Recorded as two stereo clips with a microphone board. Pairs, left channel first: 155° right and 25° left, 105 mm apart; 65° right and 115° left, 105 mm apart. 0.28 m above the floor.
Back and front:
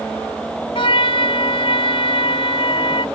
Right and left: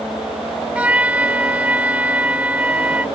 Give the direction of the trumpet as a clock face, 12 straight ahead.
6 o'clock.